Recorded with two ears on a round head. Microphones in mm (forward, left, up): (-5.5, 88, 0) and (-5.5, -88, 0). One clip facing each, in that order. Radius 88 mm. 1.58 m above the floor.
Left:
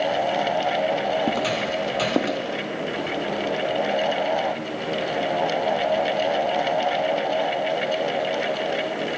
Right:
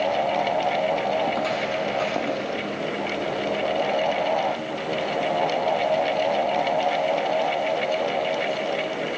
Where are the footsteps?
35° left (ahead or behind), 3 m; by 2.4 s 50° left (ahead or behind), 3 m.